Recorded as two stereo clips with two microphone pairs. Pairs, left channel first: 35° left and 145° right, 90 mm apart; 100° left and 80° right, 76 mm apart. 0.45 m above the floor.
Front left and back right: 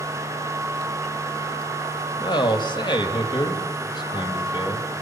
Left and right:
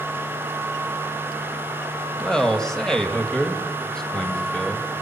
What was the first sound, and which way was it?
A man speaking, 15° left.